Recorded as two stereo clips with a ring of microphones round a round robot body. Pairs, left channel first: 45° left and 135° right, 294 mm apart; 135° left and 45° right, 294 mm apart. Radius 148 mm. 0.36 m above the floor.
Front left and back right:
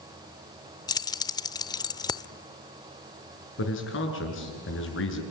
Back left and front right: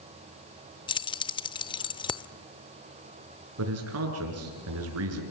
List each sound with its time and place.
0.9 s keys jangling: 95° left, 0.6 m
3.6 s a man speaking: 5° right, 6 m